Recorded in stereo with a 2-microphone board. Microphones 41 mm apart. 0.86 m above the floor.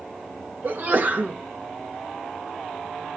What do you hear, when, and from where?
0.6 s a sneeze: 45° right (ahead or behind), 1.5 m